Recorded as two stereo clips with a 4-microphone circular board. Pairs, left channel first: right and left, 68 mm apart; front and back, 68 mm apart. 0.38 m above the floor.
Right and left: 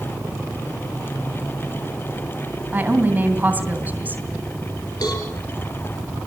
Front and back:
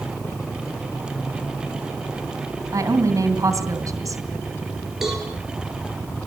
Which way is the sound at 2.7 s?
155° left.